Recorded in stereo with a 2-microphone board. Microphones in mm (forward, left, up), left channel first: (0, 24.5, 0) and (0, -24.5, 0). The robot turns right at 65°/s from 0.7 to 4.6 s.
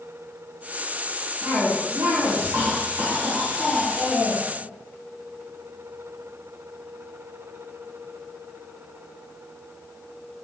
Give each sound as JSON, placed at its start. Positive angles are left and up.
{"t": 1.4, "sound": "a cough", "azimuth_deg": -135, "distance_m": 4.5}